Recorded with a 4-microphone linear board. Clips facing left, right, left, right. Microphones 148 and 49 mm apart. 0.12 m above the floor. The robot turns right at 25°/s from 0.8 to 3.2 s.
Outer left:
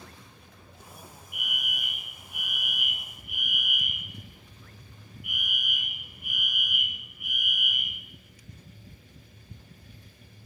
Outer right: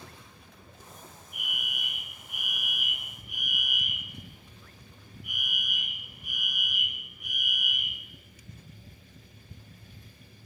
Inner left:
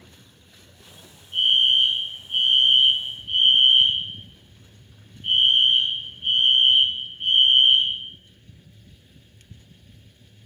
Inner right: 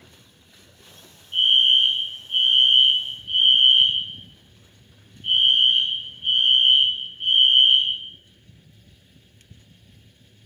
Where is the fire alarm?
40° right, 7 m; by 8.0 s 10° left, 7 m.